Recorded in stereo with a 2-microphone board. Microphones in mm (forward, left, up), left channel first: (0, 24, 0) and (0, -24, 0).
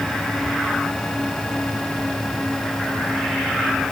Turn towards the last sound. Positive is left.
No sound to turn to.